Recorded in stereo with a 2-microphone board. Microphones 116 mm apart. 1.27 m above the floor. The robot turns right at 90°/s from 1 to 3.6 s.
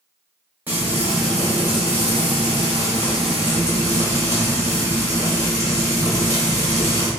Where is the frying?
20° right, 1.7 m; by 7.1 s 145° right, 1.7 m.